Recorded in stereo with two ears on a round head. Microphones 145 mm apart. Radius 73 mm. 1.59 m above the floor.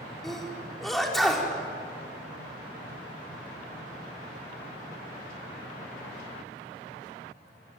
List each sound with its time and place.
0.2 s a sneeze: centre (ahead or behind), 4.5 m